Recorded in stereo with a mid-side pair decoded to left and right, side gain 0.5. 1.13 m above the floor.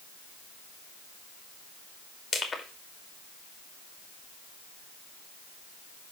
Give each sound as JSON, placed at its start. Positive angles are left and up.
{"t": 2.3, "sound": "crushing", "azimuth_deg": 25, "distance_m": 2.5}